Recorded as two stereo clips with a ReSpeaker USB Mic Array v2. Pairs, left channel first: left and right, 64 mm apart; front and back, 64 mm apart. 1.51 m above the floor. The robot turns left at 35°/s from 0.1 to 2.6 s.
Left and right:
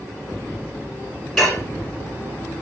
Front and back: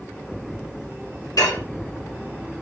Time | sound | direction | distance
1.4 | dishes clattering | straight ahead | 2.5 m